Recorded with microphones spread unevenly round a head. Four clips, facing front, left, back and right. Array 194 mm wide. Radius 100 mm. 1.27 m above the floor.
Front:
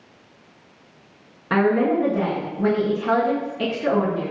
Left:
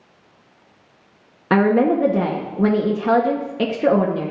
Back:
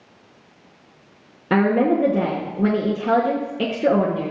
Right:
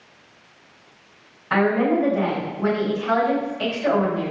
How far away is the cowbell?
No cowbell in this recording.